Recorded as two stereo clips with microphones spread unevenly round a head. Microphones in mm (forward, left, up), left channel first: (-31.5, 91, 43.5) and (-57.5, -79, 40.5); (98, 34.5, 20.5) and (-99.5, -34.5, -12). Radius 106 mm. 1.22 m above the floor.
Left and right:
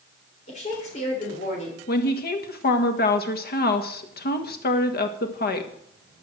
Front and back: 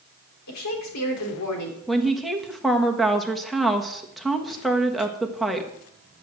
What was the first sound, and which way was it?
A woman speaking, 25° left.